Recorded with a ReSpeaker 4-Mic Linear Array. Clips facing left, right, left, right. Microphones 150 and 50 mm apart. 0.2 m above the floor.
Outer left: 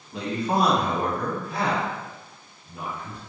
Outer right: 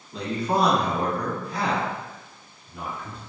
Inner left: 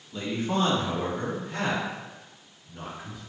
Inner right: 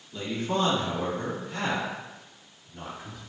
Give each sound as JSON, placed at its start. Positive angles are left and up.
{"t": 0.1, "sound": "a man speaking", "side_deg": 15, "distance_m": 1.0}